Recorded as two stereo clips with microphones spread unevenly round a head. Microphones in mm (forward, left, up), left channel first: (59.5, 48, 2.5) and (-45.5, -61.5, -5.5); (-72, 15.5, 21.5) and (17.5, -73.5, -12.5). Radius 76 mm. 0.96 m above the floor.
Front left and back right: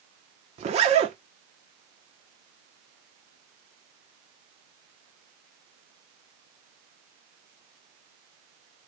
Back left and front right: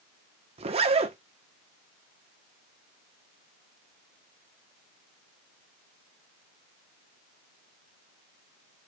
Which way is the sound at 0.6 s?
85° right.